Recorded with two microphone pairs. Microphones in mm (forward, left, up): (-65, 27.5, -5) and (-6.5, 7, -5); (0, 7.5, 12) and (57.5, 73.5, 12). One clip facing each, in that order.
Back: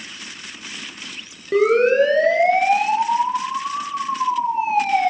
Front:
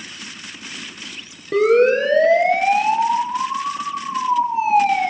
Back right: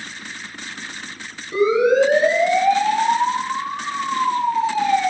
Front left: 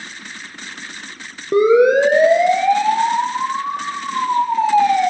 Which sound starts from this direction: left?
A siren, at 1.5 s.